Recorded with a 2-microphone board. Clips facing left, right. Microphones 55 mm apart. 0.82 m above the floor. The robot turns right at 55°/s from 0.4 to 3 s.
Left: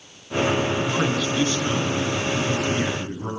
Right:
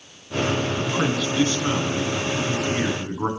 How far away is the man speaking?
About 6.5 m.